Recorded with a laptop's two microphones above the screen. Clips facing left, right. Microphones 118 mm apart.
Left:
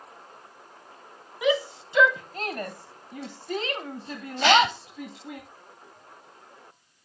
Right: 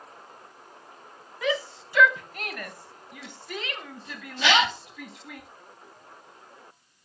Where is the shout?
15° left (ahead or behind), 1.1 m; by 5.4 s 25° left (ahead or behind), 1.9 m.